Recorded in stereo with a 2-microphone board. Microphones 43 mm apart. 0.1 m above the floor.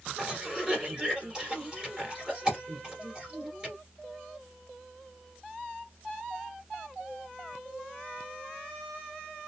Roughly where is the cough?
Centre.